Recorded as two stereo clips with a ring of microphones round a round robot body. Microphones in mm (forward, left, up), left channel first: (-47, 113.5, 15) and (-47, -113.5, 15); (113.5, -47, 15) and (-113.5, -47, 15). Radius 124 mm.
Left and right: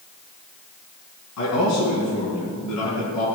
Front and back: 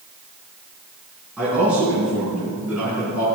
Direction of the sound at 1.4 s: 95° left.